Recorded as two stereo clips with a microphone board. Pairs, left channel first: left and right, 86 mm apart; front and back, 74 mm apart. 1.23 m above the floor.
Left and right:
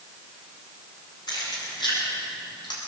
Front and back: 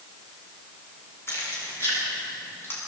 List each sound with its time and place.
1.3 s keys jangling: 55° left, 9 m; by 2.8 s 60° left, 7.5 m